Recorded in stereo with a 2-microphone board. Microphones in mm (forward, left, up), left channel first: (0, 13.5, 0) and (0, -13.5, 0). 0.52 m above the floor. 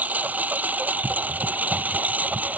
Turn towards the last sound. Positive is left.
turn(degrees=-80)